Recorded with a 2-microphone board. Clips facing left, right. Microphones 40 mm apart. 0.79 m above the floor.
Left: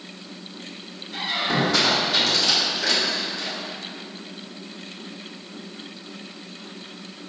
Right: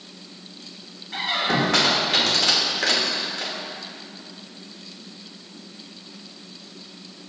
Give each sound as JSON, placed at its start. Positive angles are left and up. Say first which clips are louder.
{"t": 1.1, "sound": "a squeak", "louder": "right 1 dB", "side_deg": -55, "distance_m": 1.4}